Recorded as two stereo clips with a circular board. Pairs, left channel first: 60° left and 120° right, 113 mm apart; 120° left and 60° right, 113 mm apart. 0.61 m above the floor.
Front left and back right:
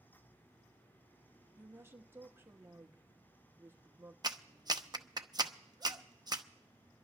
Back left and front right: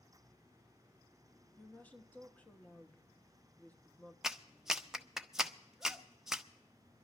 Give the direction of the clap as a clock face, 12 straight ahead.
5 o'clock.